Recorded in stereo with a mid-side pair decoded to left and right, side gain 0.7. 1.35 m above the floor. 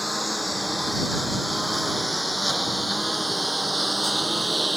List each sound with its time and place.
0.0 s a lawn mower: 5° left; by 4.8 s 5° right